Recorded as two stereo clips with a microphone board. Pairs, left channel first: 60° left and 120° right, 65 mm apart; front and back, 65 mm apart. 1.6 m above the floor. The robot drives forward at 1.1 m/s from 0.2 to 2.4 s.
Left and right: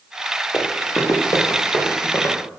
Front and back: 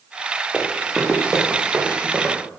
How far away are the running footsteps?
About 6.5 m.